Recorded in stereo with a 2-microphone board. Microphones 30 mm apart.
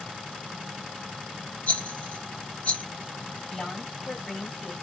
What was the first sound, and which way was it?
A rattle, 45° left (ahead or behind).